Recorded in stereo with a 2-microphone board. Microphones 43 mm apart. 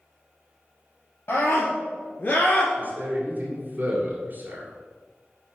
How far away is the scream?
About 2 m.